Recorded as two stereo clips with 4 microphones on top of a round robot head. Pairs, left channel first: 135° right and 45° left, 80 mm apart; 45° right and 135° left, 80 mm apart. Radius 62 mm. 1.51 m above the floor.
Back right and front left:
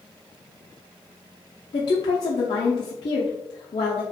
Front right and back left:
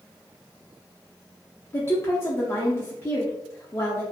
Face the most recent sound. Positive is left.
turn(degrees=-105)